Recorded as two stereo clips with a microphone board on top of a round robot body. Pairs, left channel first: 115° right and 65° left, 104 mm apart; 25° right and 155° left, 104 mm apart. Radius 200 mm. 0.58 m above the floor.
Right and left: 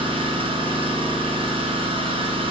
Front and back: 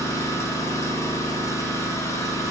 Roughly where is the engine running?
Ahead left.